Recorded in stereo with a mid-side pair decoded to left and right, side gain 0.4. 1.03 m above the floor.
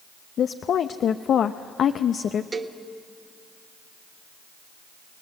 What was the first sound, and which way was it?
A woman speaking, 65° left.